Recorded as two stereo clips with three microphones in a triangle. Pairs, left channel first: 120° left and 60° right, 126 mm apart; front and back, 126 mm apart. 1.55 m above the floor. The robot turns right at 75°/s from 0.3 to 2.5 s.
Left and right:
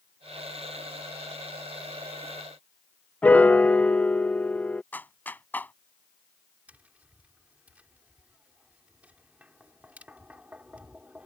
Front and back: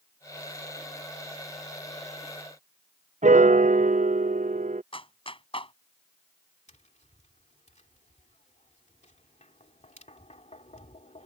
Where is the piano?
160° right.